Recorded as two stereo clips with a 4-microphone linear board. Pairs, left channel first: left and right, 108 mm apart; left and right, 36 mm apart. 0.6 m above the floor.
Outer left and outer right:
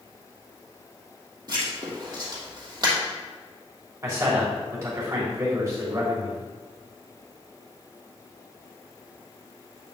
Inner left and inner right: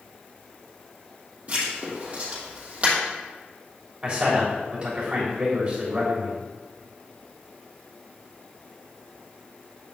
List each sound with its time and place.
1.5 s writing: 35° right (ahead or behind), 3 m
4.0 s a man speaking: 30° right (ahead or behind), 3.5 m